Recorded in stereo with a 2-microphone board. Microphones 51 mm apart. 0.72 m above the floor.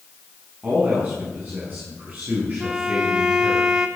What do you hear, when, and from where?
0.6 s a man speaking: 35° right (ahead or behind), 6.5 m
2.6 s a violin: 15° right (ahead or behind), 1.2 m